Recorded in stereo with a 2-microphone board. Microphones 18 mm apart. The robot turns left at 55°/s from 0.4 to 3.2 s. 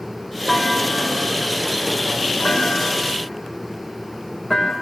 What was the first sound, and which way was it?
A clunk, 5° left (ahead or behind).